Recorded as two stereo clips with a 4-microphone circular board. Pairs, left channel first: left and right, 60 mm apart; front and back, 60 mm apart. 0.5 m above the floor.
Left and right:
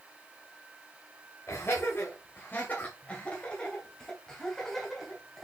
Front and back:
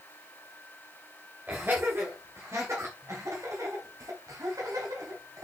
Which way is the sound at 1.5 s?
125° left.